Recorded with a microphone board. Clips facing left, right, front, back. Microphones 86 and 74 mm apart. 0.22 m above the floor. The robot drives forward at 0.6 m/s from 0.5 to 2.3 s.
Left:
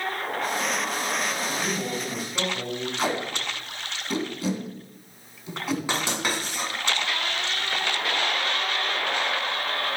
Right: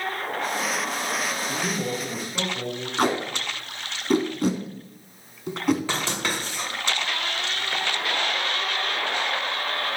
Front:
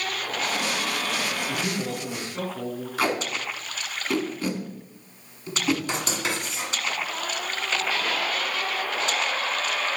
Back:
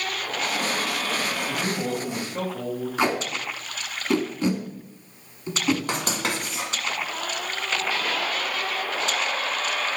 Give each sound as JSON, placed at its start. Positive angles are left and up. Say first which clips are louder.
{"t": 1.5, "sound": "a man speaking", "louder": "right 1 dB, back 2 dB", "azimuth_deg": 175, "distance_m": 1.1}
{"t": 3.0, "sound": "tape being pulled", "louder": "right 6 dB, even", "azimuth_deg": -120, "distance_m": 1.1}
{"t": 5.9, "sound": "writing", "louder": "even, back 1 dB", "azimuth_deg": 165, "distance_m": 1.6}